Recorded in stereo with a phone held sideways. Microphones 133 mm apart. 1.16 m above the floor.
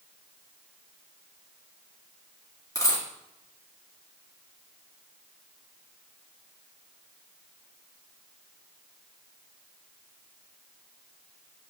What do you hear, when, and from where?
2.8 s a dropped coin: 25° left (ahead or behind), 2 m